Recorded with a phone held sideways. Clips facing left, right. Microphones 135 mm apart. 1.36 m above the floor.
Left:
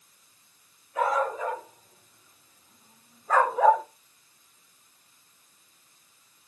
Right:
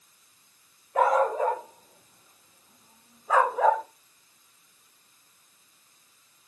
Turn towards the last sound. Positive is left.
turn(degrees=10)  # may be behind; listen again after turning